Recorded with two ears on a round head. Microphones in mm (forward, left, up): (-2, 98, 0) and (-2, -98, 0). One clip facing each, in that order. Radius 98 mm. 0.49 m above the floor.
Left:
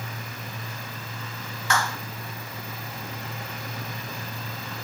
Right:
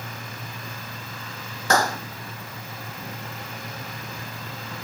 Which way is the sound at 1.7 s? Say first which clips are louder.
Right 6 dB; 35° right (ahead or behind).